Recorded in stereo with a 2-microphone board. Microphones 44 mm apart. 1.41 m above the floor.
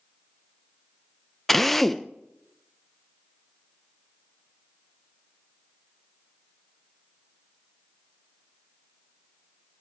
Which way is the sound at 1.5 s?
5° left (ahead or behind).